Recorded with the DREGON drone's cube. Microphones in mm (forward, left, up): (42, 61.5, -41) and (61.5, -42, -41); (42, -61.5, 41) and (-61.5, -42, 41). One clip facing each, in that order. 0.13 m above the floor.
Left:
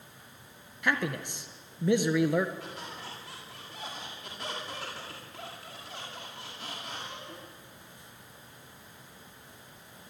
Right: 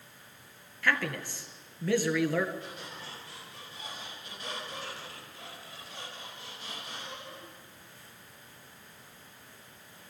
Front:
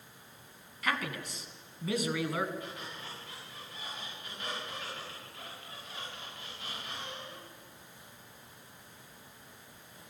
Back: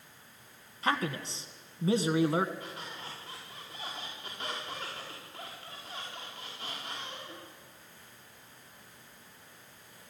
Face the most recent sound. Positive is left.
turn(degrees=110)